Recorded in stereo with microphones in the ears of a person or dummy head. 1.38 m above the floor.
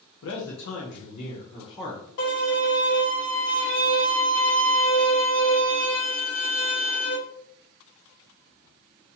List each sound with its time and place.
0.2 s a man speaking: 75° left (ahead or behind), 0.9 m; by 2.0 s 15° left (ahead or behind), 1.2 m
2.2 s a violin: 70° left (ahead or behind), 2.0 m